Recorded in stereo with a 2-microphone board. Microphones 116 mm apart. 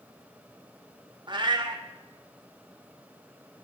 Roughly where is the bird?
I don't hear a bird.